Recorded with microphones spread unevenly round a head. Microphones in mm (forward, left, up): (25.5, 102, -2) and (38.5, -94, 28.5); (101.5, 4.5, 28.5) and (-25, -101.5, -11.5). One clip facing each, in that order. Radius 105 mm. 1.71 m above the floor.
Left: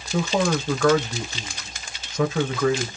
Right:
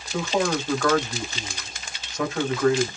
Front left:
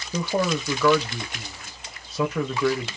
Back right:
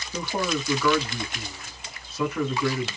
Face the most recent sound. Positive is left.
turn(degrees=85)